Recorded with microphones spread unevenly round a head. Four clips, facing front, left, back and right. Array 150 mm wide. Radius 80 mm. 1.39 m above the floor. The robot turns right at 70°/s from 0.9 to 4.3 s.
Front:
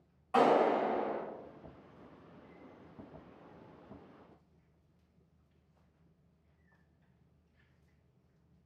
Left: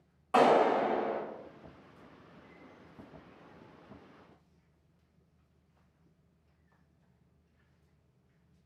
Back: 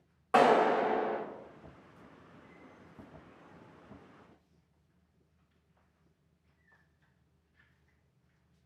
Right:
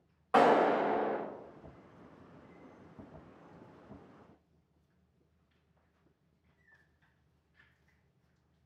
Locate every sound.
0.3 s a clap: 175° left, 1.9 m; by 1.2 s 165° right, 1.9 m